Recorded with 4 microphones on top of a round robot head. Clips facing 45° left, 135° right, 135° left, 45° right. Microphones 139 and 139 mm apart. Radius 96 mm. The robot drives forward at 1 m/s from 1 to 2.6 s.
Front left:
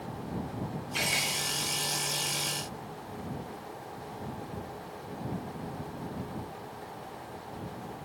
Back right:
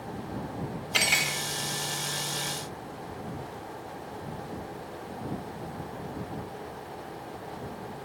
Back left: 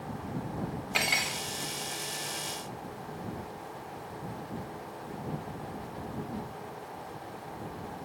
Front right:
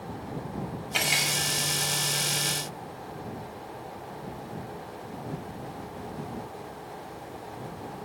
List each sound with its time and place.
0.9 s cutlery clinking: 115° right, 1.5 m; by 1.4 s 130° right, 1.7 m